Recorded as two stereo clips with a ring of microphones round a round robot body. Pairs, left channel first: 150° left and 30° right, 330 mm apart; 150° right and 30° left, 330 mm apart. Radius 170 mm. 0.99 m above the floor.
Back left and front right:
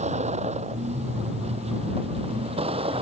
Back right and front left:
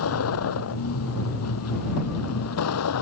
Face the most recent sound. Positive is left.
turn(degrees=-105)